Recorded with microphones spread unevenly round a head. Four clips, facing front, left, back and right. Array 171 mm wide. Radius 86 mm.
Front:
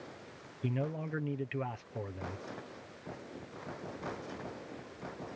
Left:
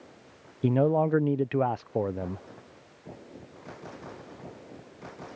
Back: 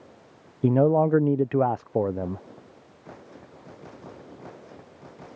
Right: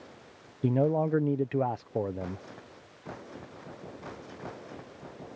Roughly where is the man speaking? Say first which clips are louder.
Left 3 dB, back 17 dB; behind.